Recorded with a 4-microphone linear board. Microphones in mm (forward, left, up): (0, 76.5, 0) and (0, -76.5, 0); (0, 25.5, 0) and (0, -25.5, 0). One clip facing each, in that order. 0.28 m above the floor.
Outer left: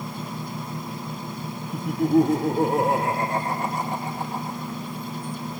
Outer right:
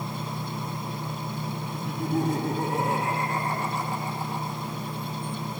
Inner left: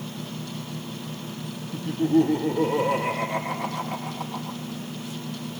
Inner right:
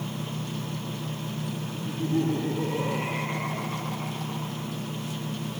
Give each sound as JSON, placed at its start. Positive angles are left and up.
{"t": 1.7, "sound": "laughter", "side_deg": 60, "distance_m": 7.0}